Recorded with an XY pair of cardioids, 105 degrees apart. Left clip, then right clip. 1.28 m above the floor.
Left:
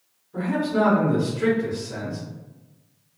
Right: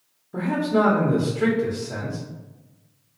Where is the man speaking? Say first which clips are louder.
Right 2 dB; 70° right, 0.9 m.